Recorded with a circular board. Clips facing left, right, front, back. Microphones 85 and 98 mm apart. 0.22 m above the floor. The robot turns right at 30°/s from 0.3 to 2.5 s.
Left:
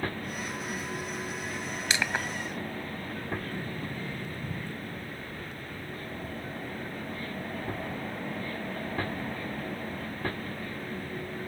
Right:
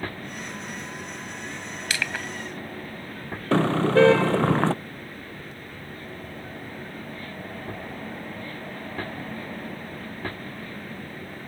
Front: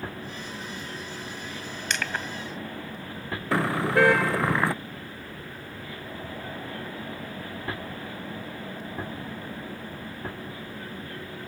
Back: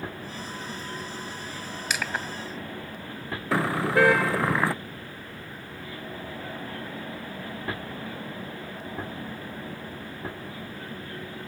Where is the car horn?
90° right.